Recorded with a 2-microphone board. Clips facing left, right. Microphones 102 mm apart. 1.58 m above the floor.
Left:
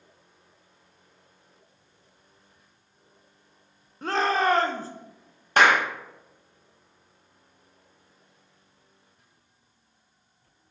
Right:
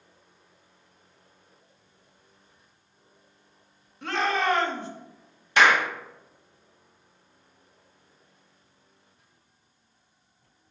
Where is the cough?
No cough in this recording.